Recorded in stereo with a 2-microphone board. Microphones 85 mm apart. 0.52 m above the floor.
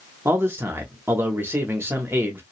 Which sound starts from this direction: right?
A man speaking, at 0.2 s.